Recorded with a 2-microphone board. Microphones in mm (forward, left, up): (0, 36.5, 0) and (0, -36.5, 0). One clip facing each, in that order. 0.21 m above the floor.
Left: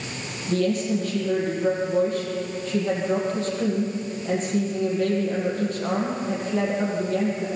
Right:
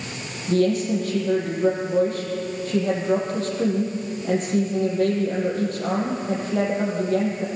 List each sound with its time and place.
0.5 s a woman speaking: 50° right (ahead or behind), 7.5 m